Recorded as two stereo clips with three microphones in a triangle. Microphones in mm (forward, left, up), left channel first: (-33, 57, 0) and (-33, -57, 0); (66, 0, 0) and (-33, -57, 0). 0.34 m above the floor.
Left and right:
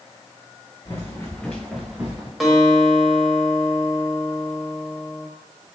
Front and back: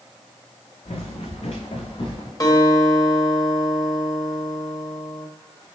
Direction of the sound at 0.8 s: 35° left.